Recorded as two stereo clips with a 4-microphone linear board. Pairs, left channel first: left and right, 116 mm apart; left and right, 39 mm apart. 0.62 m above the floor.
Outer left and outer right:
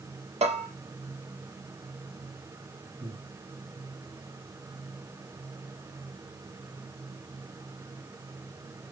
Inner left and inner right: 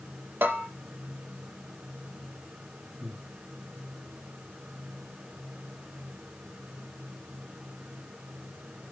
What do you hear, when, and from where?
0.4 s a bell: 70° right (ahead or behind), 3.5 m
3.0 s breathing: 80° right, 7 m